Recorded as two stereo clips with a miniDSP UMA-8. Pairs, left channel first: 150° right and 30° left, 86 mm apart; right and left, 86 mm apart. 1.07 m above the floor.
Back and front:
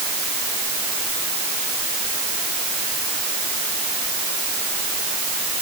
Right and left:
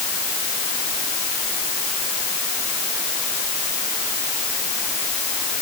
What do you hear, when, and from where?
Only background noise.